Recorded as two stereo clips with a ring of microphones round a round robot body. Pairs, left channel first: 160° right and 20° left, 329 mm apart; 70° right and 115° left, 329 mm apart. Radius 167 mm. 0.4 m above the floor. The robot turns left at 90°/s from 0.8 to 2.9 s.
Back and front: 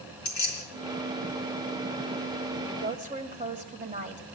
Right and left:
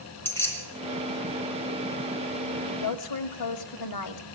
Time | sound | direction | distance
0.2 | keys jangling | 150° right | 4 m
2.7 | a woman speaking | 30° right | 1.8 m